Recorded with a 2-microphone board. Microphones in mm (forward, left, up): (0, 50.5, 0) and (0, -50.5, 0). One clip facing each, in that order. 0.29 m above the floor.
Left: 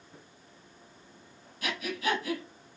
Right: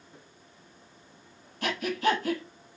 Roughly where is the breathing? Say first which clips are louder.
Right 5 dB; right.